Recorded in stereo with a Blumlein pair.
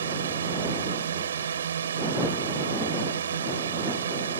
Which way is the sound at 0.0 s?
65° right.